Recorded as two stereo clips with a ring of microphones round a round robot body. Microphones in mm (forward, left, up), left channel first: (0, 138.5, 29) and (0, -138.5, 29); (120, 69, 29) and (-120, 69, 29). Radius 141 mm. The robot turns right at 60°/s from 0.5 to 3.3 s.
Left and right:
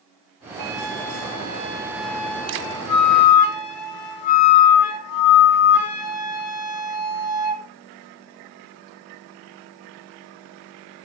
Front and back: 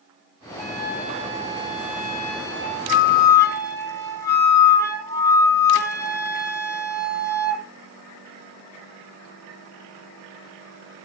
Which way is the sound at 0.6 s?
85° right.